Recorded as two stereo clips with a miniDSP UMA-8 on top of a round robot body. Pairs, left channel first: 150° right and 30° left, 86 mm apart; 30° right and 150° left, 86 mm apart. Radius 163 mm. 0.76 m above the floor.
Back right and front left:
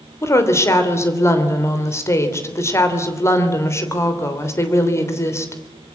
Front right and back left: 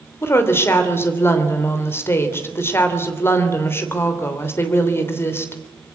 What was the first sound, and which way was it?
A woman speaking, 90° right.